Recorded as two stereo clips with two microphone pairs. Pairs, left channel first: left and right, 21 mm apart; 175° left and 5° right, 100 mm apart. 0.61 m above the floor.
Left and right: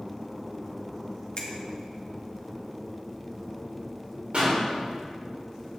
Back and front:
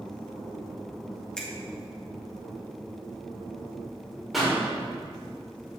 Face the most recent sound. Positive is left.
turn(degrees=-95)